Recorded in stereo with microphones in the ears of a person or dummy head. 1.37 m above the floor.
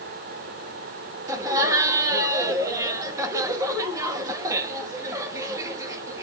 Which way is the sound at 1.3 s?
15° right (ahead or behind).